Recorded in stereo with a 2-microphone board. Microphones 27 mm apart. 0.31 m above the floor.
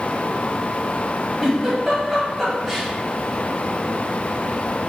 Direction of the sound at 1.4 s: 15° right (ahead or behind).